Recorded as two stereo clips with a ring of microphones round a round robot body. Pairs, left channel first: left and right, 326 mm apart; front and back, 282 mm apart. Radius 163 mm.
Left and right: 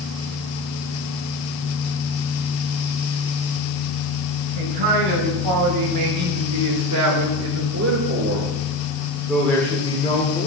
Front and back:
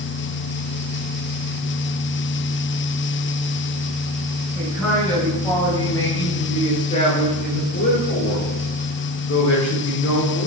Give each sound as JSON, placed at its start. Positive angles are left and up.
{"t": 4.5, "sound": "a man speaking", "azimuth_deg": -85, "distance_m": 3.5}